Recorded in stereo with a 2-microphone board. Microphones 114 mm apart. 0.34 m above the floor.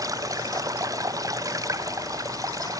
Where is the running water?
30° right (ahead or behind).